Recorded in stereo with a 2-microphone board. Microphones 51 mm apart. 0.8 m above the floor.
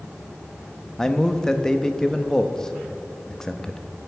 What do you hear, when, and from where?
1.0 s a man speaking: 10° left (ahead or behind), 0.7 m